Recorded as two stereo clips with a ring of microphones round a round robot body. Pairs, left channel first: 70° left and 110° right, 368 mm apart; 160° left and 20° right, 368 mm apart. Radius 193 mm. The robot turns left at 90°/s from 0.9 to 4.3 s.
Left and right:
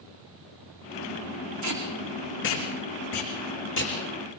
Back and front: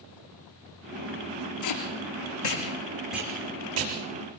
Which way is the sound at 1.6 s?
155° right.